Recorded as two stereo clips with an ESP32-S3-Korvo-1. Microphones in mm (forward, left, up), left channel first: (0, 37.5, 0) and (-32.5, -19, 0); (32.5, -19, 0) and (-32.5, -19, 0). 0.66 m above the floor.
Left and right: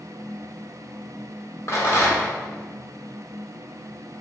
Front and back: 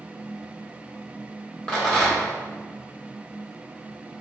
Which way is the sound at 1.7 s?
75° left.